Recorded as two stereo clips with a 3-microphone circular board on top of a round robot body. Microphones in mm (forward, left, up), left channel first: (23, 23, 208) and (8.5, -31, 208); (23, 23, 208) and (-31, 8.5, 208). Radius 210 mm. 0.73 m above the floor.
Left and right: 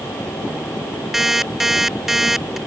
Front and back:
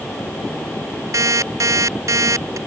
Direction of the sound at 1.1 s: 170° left.